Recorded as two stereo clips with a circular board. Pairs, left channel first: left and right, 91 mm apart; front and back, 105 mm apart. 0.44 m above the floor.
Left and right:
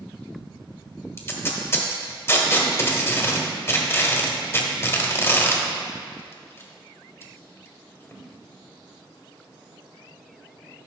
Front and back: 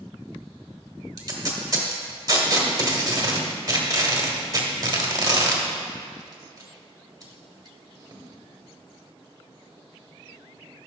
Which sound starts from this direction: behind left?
Tape being pulled, at 1.2 s.